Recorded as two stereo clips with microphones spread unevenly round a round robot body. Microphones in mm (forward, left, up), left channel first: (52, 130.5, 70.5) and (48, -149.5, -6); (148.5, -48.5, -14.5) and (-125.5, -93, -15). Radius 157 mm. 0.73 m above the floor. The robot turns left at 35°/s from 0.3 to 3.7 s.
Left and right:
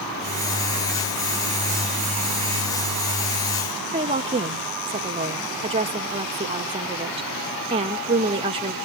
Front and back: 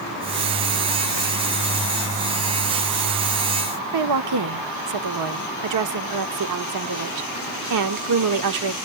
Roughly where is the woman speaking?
Behind.